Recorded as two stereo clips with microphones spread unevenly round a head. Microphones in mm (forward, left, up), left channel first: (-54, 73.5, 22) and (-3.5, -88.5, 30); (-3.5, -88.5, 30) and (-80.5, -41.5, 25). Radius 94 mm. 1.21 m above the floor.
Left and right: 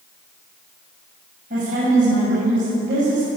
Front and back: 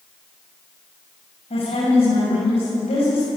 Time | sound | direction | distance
1.5 | a woman speaking | 25° right | 8.5 m